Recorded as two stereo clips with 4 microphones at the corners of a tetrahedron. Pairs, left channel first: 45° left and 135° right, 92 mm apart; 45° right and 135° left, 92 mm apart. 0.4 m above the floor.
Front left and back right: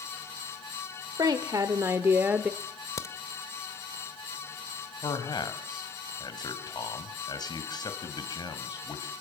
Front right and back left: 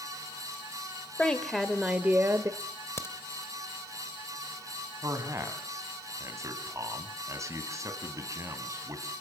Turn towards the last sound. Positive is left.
turn(degrees=80)